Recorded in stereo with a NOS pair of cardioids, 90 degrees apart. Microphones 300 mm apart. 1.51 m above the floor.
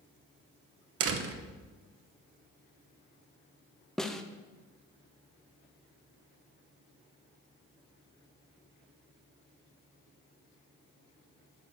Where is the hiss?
I don't hear a hiss.